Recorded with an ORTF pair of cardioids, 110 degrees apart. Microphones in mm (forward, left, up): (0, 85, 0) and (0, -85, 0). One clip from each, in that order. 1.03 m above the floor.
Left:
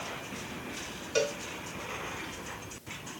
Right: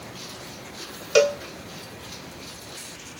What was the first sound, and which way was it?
A cowbell, 60° right.